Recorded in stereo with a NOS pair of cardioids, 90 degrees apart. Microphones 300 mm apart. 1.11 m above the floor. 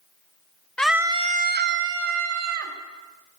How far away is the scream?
About 0.8 m.